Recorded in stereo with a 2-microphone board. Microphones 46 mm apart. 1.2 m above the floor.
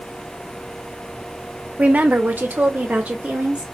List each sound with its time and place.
1.8 s a woman speaking: 30° right (ahead or behind), 0.6 m